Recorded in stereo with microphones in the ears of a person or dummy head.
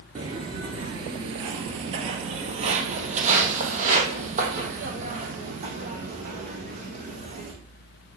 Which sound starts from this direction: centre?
Footsteps, at 0.1 s.